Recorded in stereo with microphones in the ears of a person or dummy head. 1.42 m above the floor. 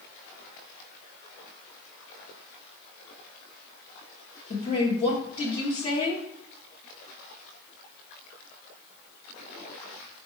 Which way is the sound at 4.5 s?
35° left (ahead or behind).